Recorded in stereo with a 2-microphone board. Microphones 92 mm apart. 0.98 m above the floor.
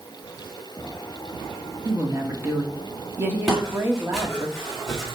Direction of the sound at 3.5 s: Centre (ahead or behind).